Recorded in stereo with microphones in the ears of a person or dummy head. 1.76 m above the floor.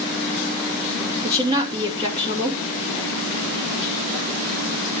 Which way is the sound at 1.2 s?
25° right (ahead or behind).